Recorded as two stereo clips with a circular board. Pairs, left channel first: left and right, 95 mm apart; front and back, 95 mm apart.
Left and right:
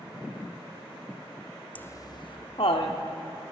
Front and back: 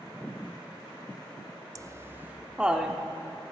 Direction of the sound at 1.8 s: 155° left.